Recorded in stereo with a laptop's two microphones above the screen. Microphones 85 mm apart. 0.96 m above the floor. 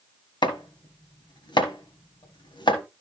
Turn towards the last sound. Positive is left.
turn(degrees=65)  # may be behind; listen again after turning